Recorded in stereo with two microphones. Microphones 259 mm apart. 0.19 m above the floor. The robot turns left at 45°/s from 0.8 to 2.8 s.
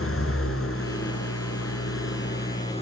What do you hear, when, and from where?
0.0 s an engine running: 115° left, 2.5 m; by 2.8 s 25° left, 2.5 m